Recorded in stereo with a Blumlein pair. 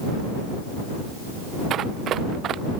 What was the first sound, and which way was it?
Running footsteps, 30° right.